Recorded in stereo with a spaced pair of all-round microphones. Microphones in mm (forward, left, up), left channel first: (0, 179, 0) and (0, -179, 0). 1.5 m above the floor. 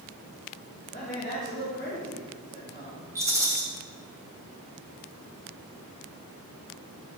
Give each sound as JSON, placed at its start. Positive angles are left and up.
{"t": 0.9, "sound": "a man speaking", "side_deg": 30, "distance_m": 3.0}
{"t": 3.1, "sound": "a rattle", "side_deg": -10, "distance_m": 2.5}